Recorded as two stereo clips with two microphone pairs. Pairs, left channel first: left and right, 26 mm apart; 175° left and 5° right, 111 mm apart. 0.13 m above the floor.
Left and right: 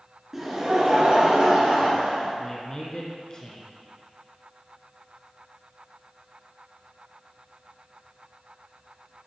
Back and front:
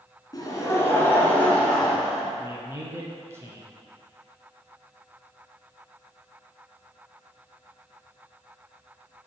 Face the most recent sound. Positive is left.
turn(degrees=50)